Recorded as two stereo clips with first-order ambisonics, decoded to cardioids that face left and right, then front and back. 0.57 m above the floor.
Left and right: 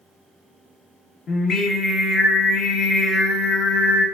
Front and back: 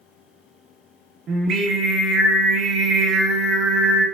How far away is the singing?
About 0.7 m.